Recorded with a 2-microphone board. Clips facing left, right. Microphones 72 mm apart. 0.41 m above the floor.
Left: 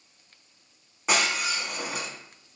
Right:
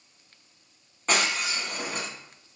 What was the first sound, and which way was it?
Breaking glass, 10° left (ahead or behind).